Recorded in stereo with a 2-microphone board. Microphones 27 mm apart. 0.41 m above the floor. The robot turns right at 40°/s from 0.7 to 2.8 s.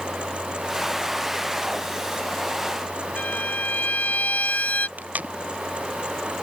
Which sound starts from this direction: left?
A violin, at 3.2 s.